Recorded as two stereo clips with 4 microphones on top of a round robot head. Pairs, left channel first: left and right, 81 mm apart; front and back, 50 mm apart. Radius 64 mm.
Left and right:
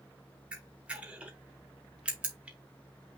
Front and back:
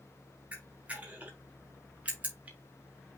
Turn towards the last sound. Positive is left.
turn(degrees=-150)